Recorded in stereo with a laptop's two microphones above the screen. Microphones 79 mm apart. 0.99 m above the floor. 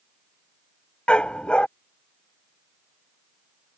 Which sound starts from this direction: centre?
A dog barking, at 1.1 s.